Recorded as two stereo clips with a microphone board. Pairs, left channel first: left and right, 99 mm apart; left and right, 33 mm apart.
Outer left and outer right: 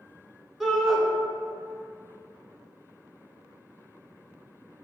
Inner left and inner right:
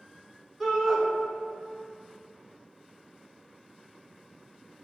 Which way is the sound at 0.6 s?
5° right (ahead or behind).